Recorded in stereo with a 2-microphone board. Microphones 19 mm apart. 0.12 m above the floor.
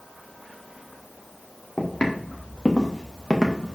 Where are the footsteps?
50° left (ahead or behind), 2.5 m; by 3.8 s 20° left (ahead or behind), 1.8 m.